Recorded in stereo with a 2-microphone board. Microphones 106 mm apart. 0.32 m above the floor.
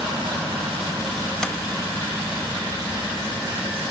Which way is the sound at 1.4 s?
5° left (ahead or behind).